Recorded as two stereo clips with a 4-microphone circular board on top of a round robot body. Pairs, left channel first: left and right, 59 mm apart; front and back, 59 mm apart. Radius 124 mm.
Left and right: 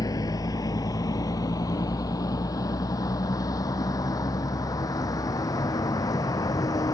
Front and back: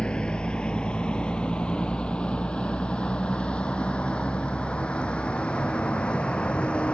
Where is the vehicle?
75° left.